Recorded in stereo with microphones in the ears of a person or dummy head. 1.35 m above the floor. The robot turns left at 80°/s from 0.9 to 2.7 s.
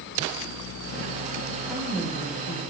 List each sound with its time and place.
1.7 s a woman speaking: 165° right, 5 m; by 2.6 s 120° left, 5 m